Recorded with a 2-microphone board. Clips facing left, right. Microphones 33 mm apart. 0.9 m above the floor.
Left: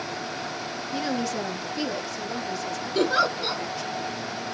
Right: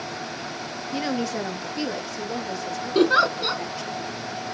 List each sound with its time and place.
0.9 s a woman speaking: 10° right (ahead or behind), 0.8 m; by 4.0 s 5° right (ahead or behind), 2.0 m
3.0 s a giggle: 35° right (ahead or behind), 2.5 m